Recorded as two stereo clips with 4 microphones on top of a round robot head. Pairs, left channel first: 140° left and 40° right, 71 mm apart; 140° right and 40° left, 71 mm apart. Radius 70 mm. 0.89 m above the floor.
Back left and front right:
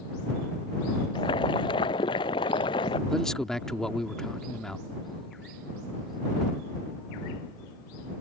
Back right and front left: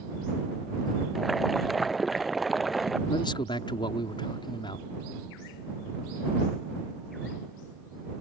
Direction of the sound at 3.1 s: 140° right.